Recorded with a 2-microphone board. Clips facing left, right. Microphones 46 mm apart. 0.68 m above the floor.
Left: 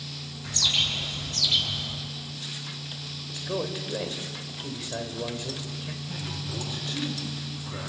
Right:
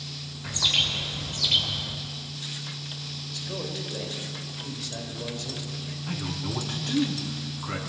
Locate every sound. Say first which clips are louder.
0.4 s a bird: right 1 dB; 20° right (ahead or behind), 3 m
3.3 s a man speaking: left 4 dB; 30° left (ahead or behind), 2.5 m
6.1 s a man speaking: right 7 dB; 80° right, 6.5 m